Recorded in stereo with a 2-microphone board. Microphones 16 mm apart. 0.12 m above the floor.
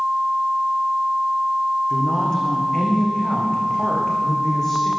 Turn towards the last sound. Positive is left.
turn(degrees=30)  # may be behind; listen again after turning